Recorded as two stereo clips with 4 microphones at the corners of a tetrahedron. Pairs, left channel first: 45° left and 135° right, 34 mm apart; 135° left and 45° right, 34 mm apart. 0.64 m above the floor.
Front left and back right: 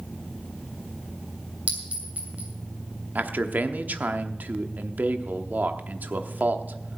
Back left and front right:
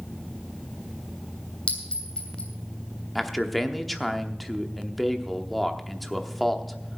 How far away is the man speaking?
About 0.9 m.